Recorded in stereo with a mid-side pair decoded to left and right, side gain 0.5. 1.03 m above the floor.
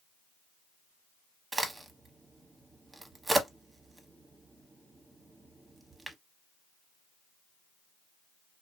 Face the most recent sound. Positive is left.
turn(degrees=-20)